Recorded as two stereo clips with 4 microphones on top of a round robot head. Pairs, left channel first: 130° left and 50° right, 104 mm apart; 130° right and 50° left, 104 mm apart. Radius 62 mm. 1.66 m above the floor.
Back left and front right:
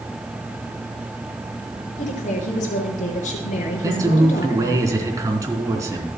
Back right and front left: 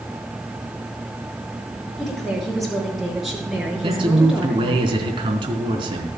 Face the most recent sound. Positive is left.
turn(degrees=10)